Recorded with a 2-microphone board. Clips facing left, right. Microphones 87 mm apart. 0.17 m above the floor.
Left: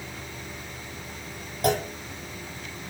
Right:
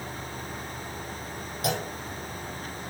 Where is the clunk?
40° left (ahead or behind), 1.3 m.